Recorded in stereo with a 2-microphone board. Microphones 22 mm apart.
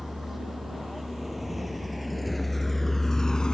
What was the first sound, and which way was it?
A vehicle, 10° right (ahead or behind).